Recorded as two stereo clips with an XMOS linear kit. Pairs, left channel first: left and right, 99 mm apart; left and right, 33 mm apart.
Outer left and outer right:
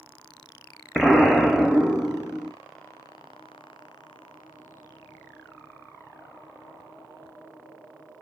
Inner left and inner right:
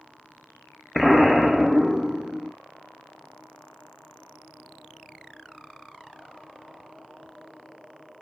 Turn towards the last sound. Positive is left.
turn(degrees=0)  # may be behind; listen again after turning